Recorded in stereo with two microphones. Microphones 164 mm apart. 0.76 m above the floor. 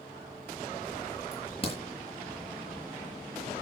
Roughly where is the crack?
Left.